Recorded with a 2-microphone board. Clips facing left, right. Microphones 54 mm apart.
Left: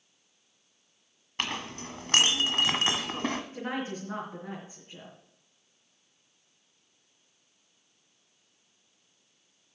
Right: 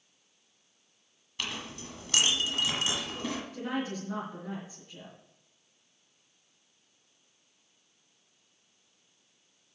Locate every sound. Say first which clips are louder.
1.4 s a clink: left 4 dB; 55° left (ahead or behind), 1.1 m
3.5 s a woman speaking: even; 35° left (ahead or behind), 3 m